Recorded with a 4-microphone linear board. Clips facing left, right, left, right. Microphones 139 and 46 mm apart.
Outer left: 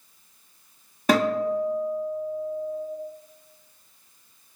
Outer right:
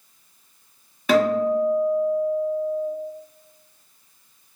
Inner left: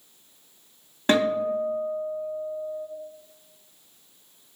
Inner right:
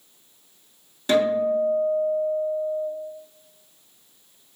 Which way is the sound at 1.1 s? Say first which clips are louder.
Outer right 3 dB, inner right 2 dB; 40° left (ahead or behind).